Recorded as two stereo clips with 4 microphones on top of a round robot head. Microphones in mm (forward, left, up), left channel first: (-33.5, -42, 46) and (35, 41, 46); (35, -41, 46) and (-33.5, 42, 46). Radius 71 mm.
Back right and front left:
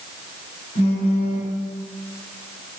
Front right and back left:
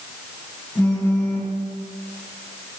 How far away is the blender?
No blender in this recording.